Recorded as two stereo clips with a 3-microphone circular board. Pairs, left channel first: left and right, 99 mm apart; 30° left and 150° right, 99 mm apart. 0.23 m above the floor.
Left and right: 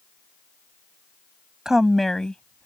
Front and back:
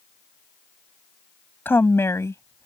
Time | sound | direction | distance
1.6 | a woman speaking | 10° right | ?